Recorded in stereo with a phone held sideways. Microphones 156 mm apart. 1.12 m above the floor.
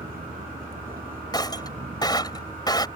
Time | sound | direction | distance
0.0 | a vehicle | 75° right (ahead or behind) | ?
1.3 | breaking glass | 30° left (ahead or behind) | ?